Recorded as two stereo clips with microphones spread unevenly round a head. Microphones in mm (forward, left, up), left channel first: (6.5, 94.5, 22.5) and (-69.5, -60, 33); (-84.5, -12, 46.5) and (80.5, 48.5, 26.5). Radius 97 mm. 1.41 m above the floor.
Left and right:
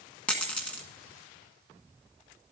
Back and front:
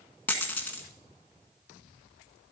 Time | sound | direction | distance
0.3 | a dropped coin | 145° left | 1.4 m